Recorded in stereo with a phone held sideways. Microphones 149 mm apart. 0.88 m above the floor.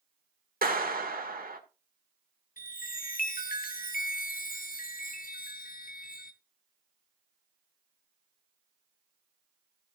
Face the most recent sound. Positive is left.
turn(degrees=75)  # may be behind; listen again after turning